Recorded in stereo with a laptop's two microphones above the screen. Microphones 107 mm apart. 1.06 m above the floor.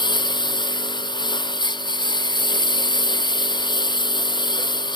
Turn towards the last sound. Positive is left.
turn(degrees=45)  # may be behind; listen again after turning